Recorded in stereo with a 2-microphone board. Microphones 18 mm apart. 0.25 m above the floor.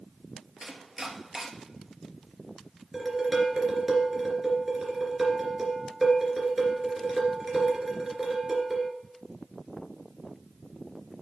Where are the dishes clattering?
15° right (ahead or behind), 2.5 m.